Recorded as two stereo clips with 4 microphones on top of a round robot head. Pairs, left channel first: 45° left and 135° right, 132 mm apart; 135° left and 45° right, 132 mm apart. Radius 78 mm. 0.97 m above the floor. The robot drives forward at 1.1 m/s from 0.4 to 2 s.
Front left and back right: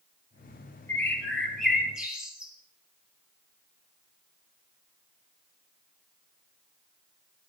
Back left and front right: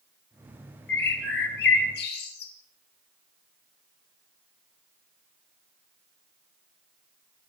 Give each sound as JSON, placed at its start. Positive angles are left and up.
{"t": 0.9, "sound": "a bird", "azimuth_deg": 120, "distance_m": 2.5}